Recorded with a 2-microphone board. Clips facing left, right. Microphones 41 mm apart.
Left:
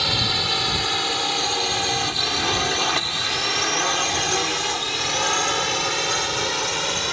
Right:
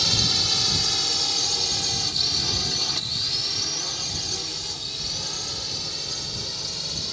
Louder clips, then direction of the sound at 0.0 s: Left 3 dB; 25° left (ahead or behind).